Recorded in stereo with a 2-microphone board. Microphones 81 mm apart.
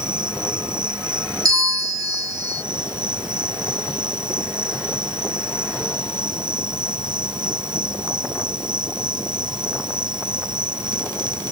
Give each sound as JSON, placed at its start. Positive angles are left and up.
{"t": 0.0, "sound": "an insect", "side_deg": -70}
{"t": 1.4, "sound": "a bell", "side_deg": -45}